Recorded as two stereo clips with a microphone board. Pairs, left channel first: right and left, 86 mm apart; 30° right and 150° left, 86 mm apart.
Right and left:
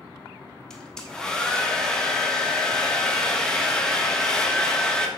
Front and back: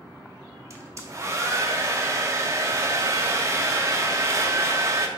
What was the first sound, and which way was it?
A hair dryer, 170° right.